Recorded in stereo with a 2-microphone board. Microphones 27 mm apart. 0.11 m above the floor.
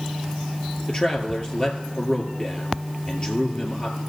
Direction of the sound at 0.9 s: 35° left (ahead or behind).